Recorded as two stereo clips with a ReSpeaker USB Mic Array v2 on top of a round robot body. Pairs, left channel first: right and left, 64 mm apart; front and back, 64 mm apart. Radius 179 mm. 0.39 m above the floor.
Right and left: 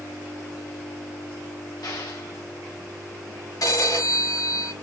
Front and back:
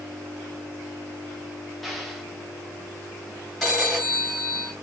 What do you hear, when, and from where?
1.8 s an explosion: 85° right, 1.8 m
3.6 s a phone ringing: 80° right, 4 m